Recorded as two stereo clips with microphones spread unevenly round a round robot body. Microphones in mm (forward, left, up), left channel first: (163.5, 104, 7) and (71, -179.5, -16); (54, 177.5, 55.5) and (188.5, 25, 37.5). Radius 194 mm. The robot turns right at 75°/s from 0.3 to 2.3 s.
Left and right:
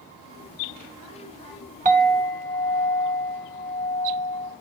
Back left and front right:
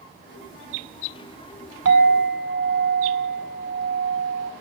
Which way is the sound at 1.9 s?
45° right.